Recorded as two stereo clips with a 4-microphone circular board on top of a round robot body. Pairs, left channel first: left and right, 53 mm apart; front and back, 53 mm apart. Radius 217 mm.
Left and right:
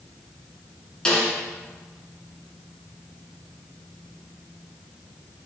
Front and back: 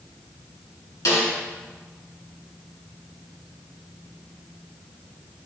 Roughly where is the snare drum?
Ahead.